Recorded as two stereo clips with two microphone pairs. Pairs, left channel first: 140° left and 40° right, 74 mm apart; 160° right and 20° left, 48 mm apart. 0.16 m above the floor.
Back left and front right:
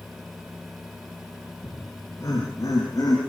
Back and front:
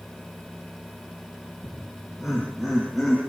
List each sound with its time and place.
1.6 s laughter: 100° left, 8.5 m; by 3.2 s 105° left, 8.5 m